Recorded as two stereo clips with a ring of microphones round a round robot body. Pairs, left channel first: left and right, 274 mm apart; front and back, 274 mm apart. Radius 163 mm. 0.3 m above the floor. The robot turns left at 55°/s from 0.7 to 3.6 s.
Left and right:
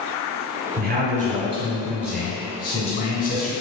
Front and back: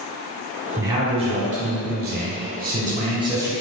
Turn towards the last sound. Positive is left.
turn(degrees=100)